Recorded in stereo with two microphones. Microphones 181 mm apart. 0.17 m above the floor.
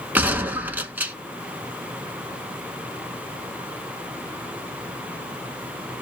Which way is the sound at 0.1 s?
10° right (ahead or behind).